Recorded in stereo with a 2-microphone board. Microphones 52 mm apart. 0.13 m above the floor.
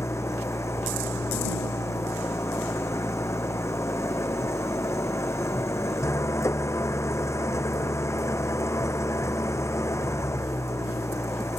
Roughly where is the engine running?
Left.